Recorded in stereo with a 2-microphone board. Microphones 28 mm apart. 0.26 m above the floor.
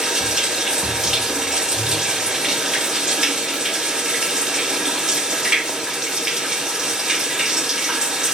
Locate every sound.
0.0 s running water: 15° right (ahead or behind), 1.6 m